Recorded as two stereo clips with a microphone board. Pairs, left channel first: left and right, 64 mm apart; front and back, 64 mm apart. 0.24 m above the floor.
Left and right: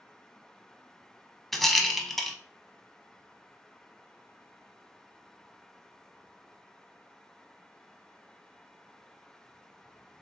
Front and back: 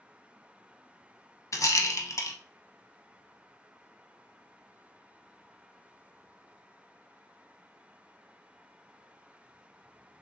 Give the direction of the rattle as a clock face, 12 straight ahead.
12 o'clock.